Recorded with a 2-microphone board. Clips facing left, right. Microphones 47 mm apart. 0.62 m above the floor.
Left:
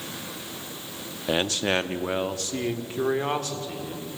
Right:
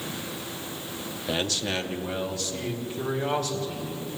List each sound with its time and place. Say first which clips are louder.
1.3 s a man speaking: left 4 dB; 20° left (ahead or behind), 0.5 m; by 4.1 s 40° left (ahead or behind), 1.6 m